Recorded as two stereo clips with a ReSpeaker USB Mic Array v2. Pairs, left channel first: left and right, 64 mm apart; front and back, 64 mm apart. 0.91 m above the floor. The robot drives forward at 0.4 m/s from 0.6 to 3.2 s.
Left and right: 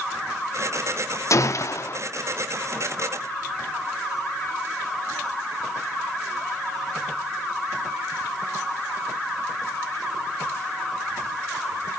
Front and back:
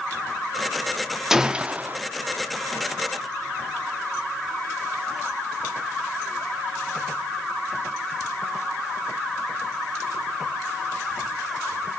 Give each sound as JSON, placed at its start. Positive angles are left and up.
{"t": 1.3, "sound": "a gunshot", "azimuth_deg": 100, "distance_m": 0.6}